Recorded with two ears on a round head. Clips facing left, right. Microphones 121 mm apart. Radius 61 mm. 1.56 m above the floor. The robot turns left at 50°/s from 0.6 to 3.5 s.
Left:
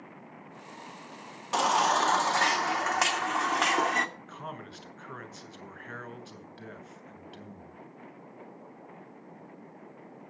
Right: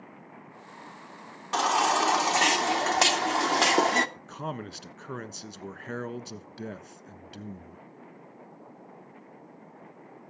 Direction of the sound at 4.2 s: 50° right (ahead or behind).